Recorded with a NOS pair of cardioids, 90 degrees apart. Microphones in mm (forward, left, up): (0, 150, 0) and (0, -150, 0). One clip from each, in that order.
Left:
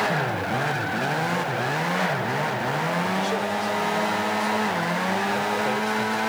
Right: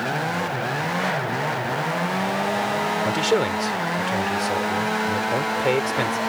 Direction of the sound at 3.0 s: 70° right.